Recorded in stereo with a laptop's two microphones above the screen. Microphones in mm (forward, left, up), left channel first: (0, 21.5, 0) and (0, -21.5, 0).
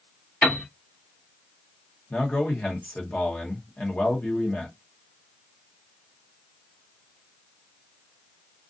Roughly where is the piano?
Left.